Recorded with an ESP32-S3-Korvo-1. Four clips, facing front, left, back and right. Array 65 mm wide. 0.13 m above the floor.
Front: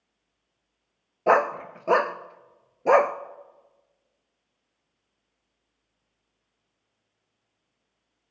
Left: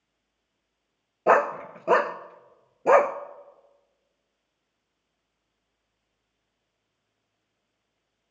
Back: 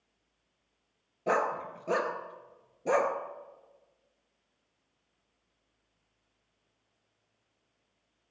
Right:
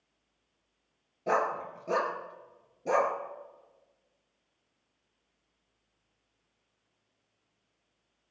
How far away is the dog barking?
About 0.6 m.